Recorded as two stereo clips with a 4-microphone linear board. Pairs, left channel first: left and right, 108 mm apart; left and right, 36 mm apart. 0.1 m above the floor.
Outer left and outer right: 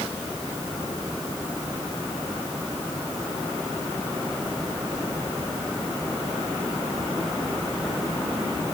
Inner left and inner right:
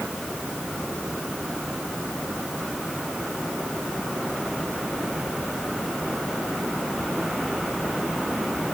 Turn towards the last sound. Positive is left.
No sound to turn to.